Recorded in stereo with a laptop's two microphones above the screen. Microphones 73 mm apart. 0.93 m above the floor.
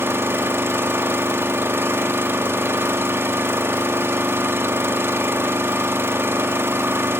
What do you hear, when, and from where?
0.0 s an engine running: 35° right (ahead or behind), 0.9 m